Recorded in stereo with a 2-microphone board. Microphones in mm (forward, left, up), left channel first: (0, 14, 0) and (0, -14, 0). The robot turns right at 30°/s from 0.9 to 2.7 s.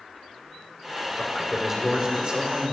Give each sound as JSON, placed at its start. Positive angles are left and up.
{"t": 1.2, "sound": "a man speaking", "azimuth_deg": 180, "distance_m": 5.0}